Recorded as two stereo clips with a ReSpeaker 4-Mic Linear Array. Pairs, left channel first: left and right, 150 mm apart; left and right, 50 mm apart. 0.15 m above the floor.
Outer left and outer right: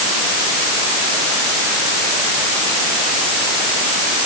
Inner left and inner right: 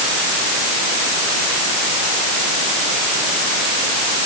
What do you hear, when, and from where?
Only background noise.